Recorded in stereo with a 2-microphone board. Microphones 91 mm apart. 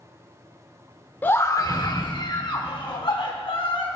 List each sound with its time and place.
1.2 s a scream: 20° left (ahead or behind), 0.8 m; by 4.0 s 65° left (ahead or behind), 3.5 m